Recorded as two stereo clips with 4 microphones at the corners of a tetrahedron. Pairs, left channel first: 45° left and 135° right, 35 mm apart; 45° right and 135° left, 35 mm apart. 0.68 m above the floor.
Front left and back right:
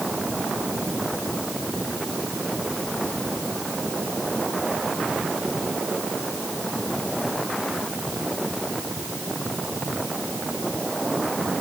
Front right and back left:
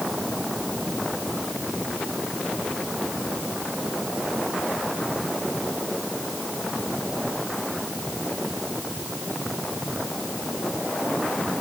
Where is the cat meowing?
No cat meowing in this recording.